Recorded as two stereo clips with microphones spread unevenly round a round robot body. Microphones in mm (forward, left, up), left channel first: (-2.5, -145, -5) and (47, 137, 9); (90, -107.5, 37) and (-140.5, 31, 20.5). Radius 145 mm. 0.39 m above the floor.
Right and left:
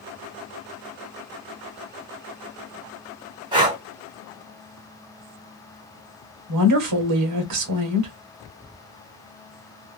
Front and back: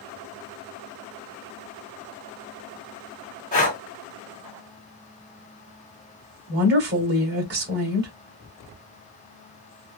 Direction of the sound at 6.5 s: 100° left.